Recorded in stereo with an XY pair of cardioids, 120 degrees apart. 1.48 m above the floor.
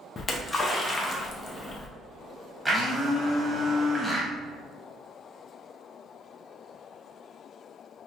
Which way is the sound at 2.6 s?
10° right.